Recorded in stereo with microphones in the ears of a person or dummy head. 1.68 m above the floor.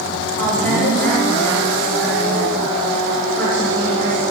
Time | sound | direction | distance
0.4 | a woman speaking | 10° left (ahead or behind) | 5 m